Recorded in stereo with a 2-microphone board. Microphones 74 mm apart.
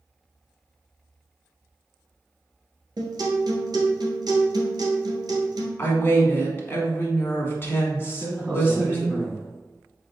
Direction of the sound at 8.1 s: 20° right (ahead or behind).